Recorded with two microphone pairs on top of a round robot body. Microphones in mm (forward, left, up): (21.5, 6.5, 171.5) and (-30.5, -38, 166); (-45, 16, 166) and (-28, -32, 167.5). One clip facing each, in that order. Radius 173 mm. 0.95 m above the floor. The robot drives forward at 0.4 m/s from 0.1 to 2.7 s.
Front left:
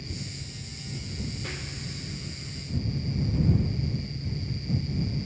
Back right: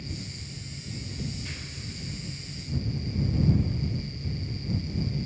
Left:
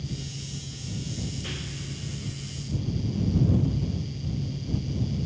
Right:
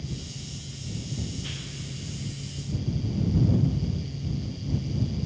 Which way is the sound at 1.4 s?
40° left.